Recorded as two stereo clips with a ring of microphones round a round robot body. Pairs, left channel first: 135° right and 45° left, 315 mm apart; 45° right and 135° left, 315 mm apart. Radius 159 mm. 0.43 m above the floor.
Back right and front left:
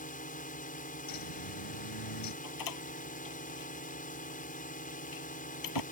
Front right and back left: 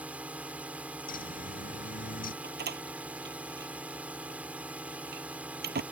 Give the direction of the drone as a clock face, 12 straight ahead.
5 o'clock.